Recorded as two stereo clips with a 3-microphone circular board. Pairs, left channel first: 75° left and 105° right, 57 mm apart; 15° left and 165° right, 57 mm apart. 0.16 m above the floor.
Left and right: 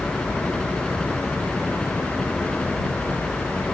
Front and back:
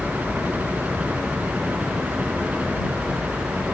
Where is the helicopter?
150° left; by 3.7 s 135° left.